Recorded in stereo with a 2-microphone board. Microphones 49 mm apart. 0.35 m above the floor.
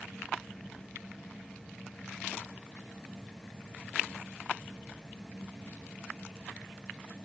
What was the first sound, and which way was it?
Only background noise.